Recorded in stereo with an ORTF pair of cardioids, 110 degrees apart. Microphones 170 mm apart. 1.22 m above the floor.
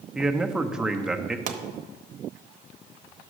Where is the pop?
50° right, 0.9 m.